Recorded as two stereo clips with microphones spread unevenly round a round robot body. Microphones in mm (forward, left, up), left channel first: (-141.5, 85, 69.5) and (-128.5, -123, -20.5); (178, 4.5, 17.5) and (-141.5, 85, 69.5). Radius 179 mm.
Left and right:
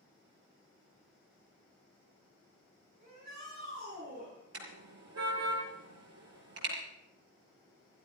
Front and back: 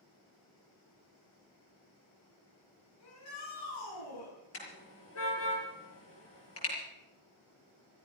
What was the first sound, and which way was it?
A shout, 25° right.